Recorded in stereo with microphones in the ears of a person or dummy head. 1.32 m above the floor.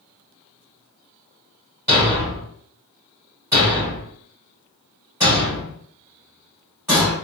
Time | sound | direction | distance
1.9 | a thud | 10° right (ahead or behind) | 2.0 m